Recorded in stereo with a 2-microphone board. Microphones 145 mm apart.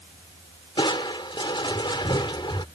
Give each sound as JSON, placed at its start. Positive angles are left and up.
{"t": 0.8, "sound": "crushing", "side_deg": 35}